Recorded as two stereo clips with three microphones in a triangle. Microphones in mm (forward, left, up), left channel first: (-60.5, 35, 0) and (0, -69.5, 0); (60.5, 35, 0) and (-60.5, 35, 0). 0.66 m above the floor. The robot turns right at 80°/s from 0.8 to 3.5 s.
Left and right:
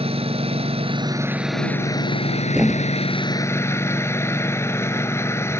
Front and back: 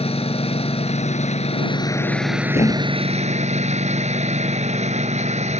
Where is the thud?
15° left; by 3.3 s 75° left.